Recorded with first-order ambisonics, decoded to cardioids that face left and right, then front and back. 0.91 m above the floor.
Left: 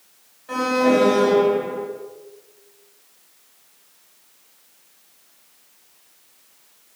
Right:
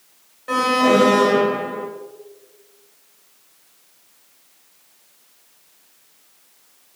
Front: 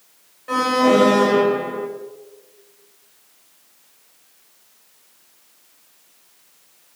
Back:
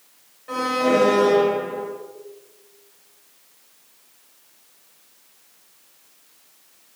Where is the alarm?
75° right, 7.5 m.